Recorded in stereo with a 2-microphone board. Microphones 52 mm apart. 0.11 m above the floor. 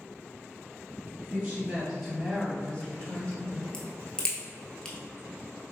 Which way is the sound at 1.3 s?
25° right (ahead or behind).